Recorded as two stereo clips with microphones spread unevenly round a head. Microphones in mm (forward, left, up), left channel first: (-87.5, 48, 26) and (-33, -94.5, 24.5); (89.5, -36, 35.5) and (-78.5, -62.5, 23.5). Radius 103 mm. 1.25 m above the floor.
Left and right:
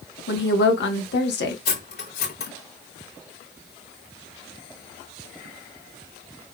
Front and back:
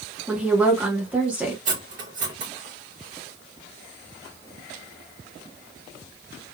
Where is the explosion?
I don't hear an explosion.